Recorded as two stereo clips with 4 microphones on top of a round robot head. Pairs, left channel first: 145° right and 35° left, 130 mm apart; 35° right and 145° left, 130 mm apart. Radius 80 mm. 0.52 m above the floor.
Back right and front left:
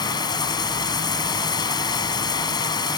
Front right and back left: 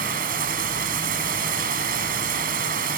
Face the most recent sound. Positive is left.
turn(degrees=155)